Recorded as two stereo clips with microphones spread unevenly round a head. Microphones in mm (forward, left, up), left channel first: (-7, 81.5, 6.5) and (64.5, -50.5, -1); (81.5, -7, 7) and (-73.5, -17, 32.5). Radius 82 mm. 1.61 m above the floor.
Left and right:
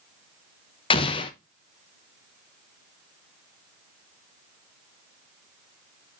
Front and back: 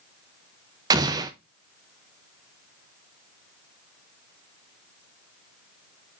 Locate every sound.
0.9 s an explosion: 145° left, 0.8 m